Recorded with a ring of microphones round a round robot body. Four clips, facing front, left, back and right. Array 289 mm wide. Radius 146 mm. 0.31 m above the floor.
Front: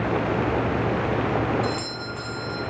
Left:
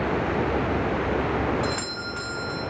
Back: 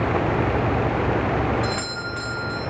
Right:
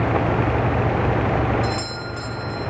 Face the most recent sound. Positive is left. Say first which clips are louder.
# right 3 dB, back 1 dB
turn(degrees=140)